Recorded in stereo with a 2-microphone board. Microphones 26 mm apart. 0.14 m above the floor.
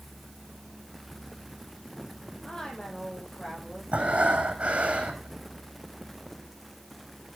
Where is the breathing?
55° right (ahead or behind), 2.5 m.